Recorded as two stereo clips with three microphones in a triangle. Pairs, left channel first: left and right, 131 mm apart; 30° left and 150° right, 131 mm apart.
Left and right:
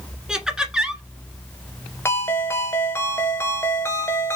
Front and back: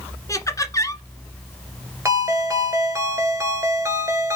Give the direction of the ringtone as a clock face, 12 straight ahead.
7 o'clock.